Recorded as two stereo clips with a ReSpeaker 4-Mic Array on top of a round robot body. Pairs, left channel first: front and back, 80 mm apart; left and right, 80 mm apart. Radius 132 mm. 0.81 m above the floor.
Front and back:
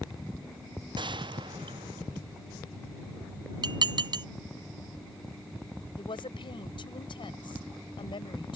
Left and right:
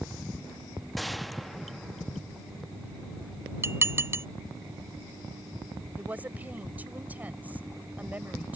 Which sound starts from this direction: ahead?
A woman speaking, at 6.0 s.